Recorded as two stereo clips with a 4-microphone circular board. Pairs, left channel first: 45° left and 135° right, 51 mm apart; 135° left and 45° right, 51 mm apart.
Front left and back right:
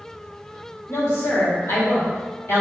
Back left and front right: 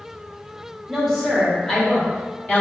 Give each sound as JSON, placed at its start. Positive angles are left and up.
{"t": 0.9, "sound": "a woman speaking", "azimuth_deg": 45, "distance_m": 1.6}